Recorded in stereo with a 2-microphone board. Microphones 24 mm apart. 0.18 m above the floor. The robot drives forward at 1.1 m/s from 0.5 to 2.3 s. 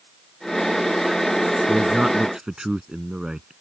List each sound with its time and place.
1.7 s a man speaking: 25° right (ahead or behind); by 3.5 s 30° right (ahead or behind)